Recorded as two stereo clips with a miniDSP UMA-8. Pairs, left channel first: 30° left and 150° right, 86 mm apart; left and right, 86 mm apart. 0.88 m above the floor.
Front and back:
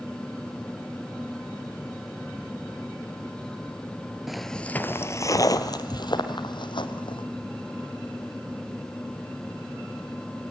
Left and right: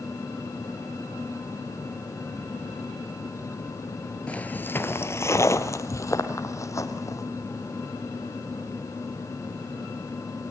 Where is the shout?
No shout in this recording.